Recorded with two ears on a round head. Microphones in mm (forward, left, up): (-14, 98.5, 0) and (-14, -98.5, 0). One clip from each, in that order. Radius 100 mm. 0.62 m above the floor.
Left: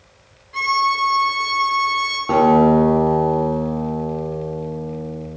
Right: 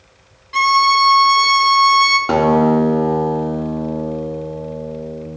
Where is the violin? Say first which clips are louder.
Right 6 dB; 55° right (ahead or behind), 0.8 m.